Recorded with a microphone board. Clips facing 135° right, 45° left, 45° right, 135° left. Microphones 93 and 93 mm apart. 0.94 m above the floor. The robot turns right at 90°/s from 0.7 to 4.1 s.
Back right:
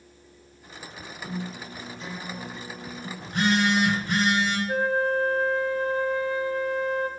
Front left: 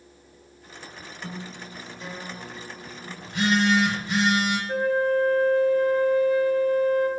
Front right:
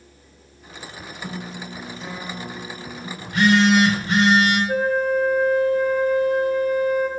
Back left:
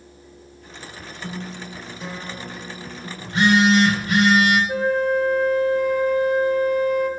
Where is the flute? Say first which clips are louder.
Front left 3 dB, even; 75° right, 1.1 m.